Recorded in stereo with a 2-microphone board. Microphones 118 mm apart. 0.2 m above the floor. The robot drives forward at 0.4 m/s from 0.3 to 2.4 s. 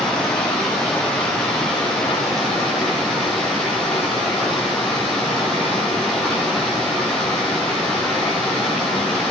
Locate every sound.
0.0 s running water: 5° left (ahead or behind), 6.5 m